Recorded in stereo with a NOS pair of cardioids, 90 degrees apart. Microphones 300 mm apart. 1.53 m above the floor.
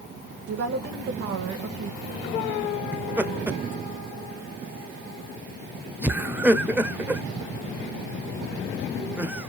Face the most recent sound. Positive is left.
turn(degrees=-5)